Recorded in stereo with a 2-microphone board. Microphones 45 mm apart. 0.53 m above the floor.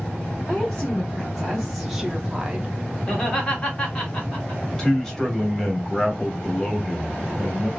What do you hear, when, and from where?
0.5 s a woman speaking: 15° left (ahead or behind), 1.4 m; by 2.8 s 25° right (ahead or behind), 0.9 m
3.1 s laughter: 20° left (ahead or behind), 1.4 m
4.6 s a man speaking: 10° left (ahead or behind), 1.0 m